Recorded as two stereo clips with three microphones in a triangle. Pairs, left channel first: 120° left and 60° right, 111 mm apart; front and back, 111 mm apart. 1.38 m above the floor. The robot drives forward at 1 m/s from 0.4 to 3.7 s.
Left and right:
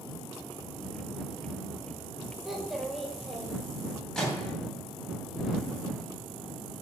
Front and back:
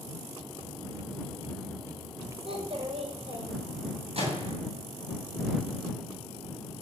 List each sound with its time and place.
2.5 s a child speaking: 150° right, 4.5 m; by 3.6 s 155° right, 6 m
4.2 s a microwave: 155° right, 9 m